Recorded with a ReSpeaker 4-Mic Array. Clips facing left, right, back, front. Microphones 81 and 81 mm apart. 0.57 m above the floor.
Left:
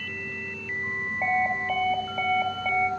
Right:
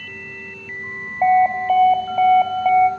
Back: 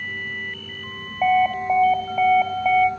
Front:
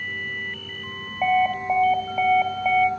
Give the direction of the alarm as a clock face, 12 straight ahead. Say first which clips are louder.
Right 12 dB, back 2 dB; 3 o'clock.